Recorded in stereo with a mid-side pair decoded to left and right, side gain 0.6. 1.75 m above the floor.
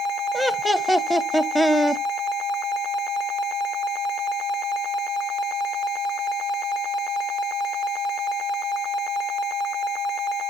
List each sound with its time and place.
0.3 s laughter: 5° right, 0.8 m